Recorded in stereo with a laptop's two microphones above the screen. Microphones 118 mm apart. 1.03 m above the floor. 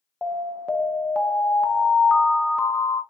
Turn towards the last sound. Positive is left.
turn(degrees=0)  # may be behind; listen again after turning